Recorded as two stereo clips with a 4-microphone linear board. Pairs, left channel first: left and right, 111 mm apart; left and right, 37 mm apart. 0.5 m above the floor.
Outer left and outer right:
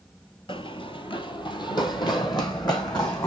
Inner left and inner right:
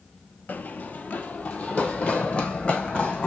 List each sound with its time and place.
0.5 s running footsteps: 50° left (ahead or behind), 0.7 m; by 3.3 s 35° left (ahead or behind), 2 m